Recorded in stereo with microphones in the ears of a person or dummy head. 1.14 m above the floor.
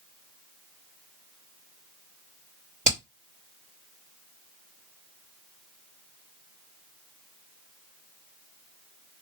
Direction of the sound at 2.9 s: 40° right (ahead or behind).